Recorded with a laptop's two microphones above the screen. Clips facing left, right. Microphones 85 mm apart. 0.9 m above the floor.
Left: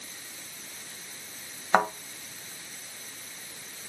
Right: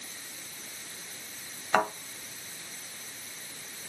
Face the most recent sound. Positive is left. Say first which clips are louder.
# left 3 dB
turn(degrees=20)  # may be behind; listen again after turning